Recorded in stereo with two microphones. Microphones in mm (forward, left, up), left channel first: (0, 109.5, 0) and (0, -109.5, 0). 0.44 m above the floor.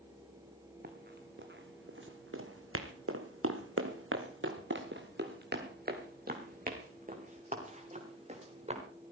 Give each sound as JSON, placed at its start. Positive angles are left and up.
{"t": 0.8, "sound": "running footsteps", "side_deg": -45, "distance_m": 3.0}